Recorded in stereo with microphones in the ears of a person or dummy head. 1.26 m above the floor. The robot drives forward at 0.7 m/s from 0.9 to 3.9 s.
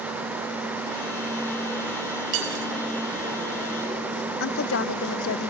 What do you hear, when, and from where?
2.3 s cutlery clinking: 85° right, 4.5 m
4.4 s a woman speaking: 70° left (ahead or behind), 0.6 m